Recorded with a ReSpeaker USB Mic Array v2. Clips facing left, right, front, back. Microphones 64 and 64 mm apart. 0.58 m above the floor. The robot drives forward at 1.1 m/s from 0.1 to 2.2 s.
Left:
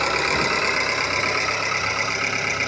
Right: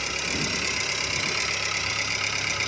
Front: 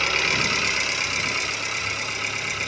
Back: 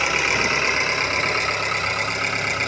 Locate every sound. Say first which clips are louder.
0.0 s an engine running: left 9 dB, back 3 dB; 110° left, 2.0 m; by 2.7 s 150° left, 3.5 m